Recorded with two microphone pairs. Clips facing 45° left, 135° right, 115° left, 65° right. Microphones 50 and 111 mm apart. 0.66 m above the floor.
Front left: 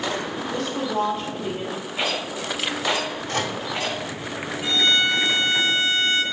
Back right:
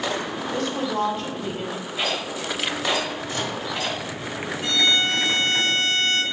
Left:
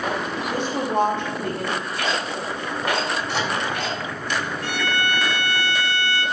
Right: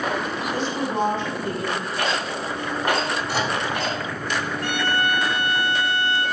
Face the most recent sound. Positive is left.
turn(degrees=-30)